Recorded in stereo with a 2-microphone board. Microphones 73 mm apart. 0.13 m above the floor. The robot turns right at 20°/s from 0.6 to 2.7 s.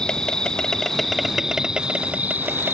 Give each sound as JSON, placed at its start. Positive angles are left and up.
{"t": 0.0, "sound": "an insect", "azimuth_deg": 170}